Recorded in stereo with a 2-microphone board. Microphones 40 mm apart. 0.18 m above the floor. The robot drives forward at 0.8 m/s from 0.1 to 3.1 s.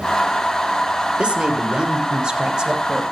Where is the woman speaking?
25° right (ahead or behind), 5 m; by 3.0 s 20° right (ahead or behind), 6.5 m.